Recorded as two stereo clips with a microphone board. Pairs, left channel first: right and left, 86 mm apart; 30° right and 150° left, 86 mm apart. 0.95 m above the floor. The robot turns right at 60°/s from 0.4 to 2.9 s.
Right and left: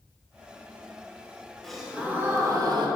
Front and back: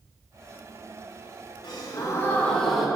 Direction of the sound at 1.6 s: 5° right.